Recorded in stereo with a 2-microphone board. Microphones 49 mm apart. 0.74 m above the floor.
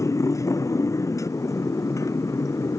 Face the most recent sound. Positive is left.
turn(degrees=75)  # may be behind; listen again after turning